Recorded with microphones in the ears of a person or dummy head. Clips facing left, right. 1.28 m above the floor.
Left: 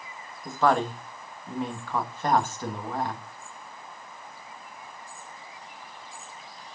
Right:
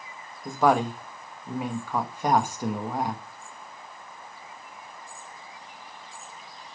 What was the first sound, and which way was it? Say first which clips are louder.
A woman speaking: right 2 dB; 10° right (ahead or behind).